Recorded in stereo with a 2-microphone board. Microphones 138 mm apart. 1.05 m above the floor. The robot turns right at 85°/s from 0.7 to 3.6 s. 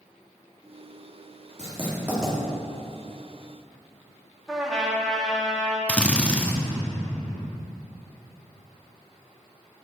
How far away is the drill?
About 0.8 m.